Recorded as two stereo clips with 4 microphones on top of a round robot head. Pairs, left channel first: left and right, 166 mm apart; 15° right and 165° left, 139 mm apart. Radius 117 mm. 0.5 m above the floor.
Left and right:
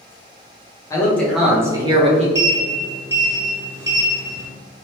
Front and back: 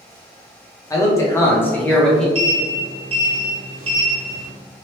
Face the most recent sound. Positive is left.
turn(degrees=-160)